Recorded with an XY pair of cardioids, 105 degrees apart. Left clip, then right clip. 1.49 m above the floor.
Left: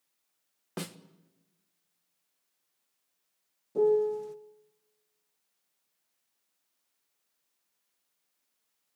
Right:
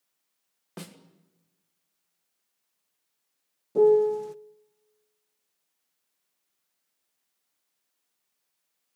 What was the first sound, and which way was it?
A snare drum, 30° left.